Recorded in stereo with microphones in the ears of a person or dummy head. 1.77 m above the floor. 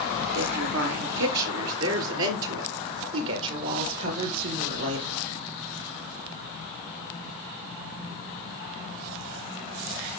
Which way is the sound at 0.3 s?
90° right.